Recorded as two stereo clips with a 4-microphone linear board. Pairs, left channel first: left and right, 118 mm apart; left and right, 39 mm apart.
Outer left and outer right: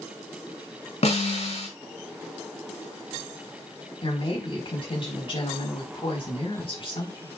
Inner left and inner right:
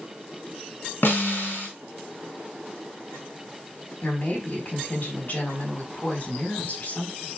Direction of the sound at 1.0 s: 65° left (ahead or behind).